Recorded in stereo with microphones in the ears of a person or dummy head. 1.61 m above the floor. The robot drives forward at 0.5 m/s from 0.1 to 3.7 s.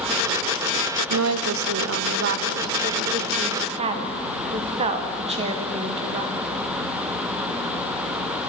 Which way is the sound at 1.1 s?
90° right.